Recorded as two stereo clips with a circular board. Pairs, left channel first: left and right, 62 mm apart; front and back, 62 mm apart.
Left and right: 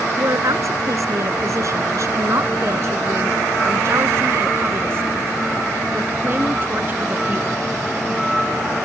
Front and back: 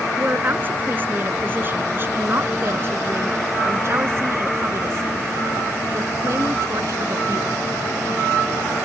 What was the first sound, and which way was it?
A woman speaking, 120° right.